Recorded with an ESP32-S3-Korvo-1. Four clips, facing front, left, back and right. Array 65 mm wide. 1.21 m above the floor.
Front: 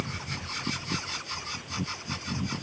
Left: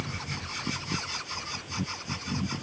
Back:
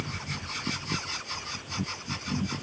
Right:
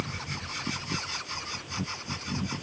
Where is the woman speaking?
I don't hear a woman speaking.